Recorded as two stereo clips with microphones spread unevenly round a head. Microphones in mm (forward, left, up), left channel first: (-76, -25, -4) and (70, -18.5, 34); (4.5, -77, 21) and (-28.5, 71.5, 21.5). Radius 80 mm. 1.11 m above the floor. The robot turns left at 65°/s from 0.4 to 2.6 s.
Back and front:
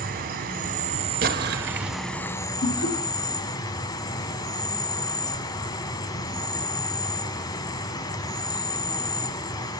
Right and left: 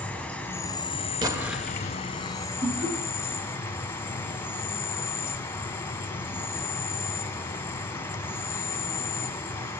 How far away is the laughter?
About 2.5 m.